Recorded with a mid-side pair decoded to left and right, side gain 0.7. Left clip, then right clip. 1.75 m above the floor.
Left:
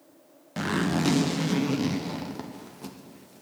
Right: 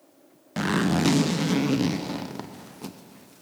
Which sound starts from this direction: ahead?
A zipper, at 0.6 s.